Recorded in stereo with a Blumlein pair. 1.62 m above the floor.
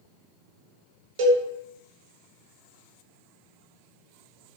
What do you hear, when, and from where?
1.2 s a cowbell: 50° right, 1.2 m